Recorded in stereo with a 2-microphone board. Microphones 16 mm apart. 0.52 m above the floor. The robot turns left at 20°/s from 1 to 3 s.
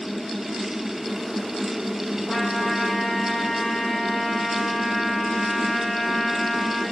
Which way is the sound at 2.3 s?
75° left (ahead or behind).